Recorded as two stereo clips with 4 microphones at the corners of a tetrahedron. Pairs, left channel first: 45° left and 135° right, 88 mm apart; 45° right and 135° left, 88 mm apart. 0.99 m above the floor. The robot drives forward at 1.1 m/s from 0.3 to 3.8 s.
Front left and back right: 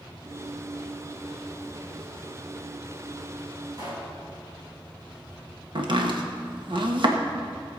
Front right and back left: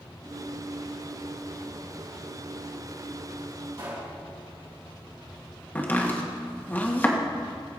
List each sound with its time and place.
3.7 s a pop: straight behind, 4.5 m
5.8 s chopping: 115° right, 1.4 m